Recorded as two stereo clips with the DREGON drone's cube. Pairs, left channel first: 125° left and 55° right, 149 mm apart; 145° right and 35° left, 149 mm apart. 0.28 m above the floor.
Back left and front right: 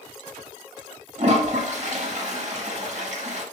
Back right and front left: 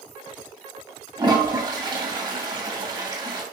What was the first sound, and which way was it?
A toilet flushing, 25° right.